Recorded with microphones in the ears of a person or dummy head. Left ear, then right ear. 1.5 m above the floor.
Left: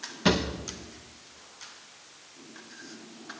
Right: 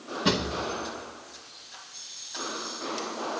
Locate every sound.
0.2 s a drawer: 25° left (ahead or behind), 1.0 m